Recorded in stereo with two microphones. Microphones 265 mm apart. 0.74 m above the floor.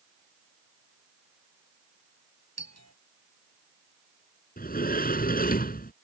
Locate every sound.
2.6 s a doorbell: 70° right (ahead or behind)
4.6 s a sliding door: 35° left (ahead or behind)